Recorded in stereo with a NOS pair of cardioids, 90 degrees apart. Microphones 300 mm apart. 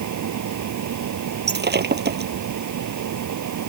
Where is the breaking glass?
30° right.